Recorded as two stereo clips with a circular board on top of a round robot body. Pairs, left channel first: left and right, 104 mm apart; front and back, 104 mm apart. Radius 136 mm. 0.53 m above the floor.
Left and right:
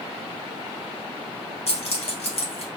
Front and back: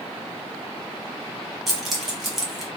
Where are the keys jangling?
90° left, 1.1 m.